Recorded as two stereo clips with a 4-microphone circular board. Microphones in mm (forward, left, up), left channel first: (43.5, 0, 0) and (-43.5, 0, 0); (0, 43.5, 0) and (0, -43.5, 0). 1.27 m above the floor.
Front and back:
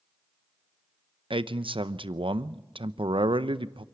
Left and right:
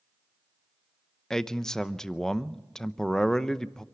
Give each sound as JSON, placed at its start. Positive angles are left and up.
{"t": 1.3, "sound": "a man speaking", "azimuth_deg": 175, "distance_m": 0.7}